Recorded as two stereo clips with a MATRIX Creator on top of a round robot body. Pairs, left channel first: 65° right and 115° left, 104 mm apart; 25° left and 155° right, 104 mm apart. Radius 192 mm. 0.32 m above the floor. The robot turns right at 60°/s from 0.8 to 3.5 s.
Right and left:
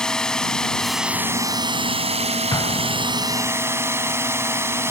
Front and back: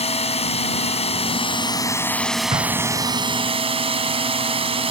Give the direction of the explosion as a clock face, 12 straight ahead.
4 o'clock.